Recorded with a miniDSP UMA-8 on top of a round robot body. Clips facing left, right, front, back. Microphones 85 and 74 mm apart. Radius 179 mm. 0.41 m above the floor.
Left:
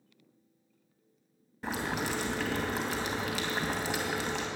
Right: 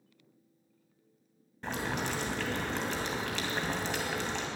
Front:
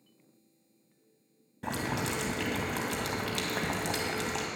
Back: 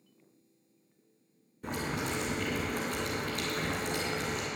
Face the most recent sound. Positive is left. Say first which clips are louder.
# left 1 dB, front 2 dB
turn(degrees=5)